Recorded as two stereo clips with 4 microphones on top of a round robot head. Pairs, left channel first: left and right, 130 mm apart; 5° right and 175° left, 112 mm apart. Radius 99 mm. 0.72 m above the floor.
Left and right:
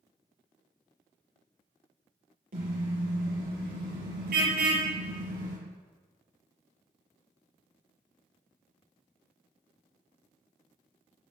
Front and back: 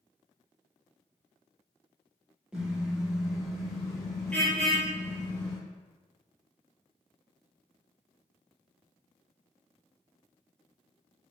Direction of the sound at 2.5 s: 100° right.